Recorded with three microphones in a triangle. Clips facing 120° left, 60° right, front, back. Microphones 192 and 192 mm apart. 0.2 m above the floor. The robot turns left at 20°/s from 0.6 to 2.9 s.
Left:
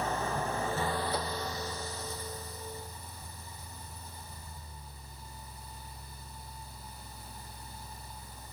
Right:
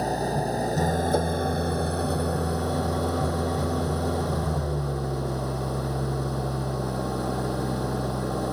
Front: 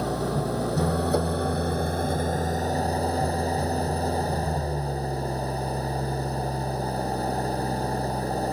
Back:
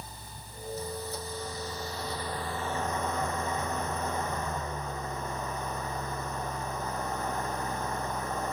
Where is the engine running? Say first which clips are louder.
Right 7 dB, front 22 dB; 10° right; by 8.5 s 55° right.